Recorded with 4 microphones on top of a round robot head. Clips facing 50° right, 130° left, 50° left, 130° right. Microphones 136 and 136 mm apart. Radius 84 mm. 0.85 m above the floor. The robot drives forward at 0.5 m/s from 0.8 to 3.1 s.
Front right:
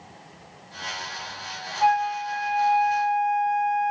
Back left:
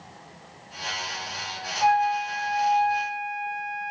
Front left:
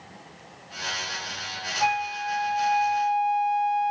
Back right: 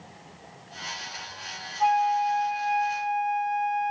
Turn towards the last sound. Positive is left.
turn(degrees=-50)